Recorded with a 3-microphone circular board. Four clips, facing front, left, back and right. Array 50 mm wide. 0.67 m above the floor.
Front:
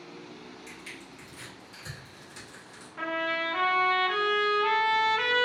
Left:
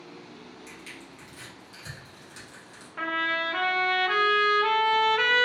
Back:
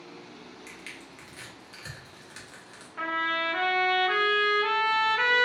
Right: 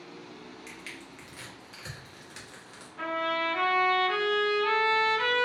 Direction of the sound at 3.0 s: 115° left.